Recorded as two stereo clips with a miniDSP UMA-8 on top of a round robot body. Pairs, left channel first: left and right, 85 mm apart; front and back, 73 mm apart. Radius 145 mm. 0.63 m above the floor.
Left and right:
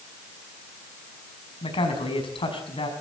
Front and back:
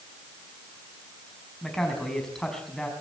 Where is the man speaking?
85° left, 5.5 m.